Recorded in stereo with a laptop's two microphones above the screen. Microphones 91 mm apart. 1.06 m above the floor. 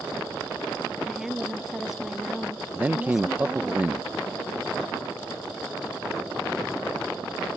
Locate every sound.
1.1 s a woman speaking: 5° right (ahead or behind)
2.8 s a man speaking: 20° right (ahead or behind)